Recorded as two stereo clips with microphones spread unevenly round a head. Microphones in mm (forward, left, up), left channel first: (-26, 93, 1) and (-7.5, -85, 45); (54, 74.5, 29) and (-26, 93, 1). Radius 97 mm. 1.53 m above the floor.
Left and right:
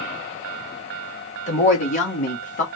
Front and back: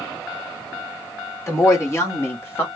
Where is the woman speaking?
40° left, 3 m; by 2.6 s 45° left, 2.5 m.